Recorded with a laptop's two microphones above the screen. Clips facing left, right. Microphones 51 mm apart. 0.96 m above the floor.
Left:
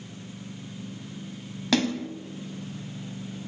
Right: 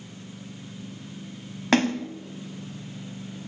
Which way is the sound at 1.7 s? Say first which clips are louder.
Right 3 dB; 40° right (ahead or behind).